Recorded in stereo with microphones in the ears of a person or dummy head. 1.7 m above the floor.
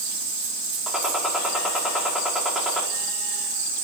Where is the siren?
I don't hear a siren.